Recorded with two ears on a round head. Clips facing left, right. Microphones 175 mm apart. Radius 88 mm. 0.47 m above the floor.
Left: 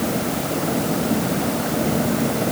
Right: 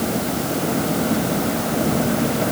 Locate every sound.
Only background noise.